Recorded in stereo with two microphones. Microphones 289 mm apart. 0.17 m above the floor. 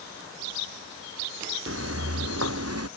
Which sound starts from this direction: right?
Footsteps, at 1.7 s.